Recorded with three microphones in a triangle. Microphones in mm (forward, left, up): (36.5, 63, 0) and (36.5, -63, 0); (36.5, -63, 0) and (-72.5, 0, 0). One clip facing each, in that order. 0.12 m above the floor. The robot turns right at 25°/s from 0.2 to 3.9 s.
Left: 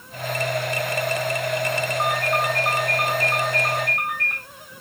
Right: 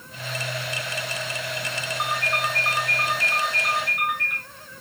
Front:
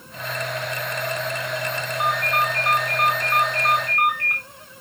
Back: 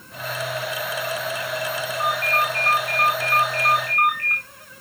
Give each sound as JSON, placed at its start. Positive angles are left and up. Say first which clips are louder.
{"t": 2.0, "sound": "a ringtone", "louder": "left 2 dB, front 1 dB", "azimuth_deg": -10, "distance_m": 3.0}